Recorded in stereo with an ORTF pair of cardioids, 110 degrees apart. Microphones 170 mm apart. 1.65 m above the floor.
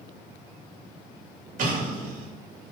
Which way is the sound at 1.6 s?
50° right.